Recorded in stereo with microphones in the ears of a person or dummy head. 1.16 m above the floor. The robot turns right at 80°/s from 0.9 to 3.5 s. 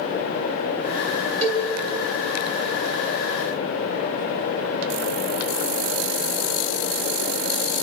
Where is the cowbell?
35° right (ahead or behind), 3 m; by 1.6 s 15° right (ahead or behind), 3 m.